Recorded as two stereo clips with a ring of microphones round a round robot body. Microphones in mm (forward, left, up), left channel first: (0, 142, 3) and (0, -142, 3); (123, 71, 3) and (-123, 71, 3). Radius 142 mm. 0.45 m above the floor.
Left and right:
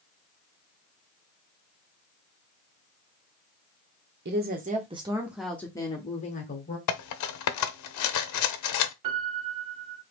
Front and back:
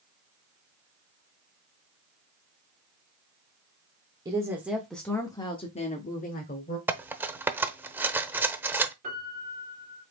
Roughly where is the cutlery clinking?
Left.